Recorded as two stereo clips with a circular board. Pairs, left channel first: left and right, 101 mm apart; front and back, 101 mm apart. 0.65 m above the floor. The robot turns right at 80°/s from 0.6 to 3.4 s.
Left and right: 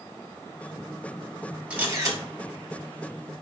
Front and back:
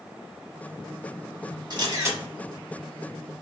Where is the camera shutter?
160° right, 1.3 m; by 2.2 s 125° right, 1.3 m.